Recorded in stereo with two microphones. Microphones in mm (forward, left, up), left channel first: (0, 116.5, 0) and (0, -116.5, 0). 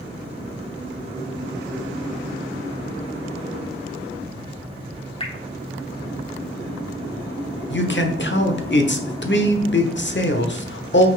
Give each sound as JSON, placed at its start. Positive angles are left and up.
{"t": 5.2, "sound": "dripping", "side_deg": 25, "distance_m": 1.2}
{"t": 7.7, "sound": "a man speaking", "side_deg": 50, "distance_m": 1.0}